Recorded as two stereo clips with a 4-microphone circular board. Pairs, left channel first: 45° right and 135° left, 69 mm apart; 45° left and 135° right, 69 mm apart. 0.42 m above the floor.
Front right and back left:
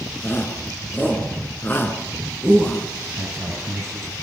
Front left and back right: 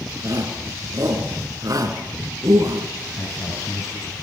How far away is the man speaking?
About 8 m.